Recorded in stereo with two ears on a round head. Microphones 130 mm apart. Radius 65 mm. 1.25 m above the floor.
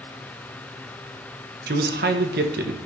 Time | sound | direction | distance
1.7 | a man speaking | 75° right (ahead or behind) | 1.1 m